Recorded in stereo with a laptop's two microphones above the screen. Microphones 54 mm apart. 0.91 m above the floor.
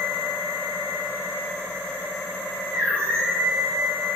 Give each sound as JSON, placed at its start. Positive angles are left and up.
{"t": 0.0, "sound": "a machine running", "side_deg": -40, "distance_m": 1.0}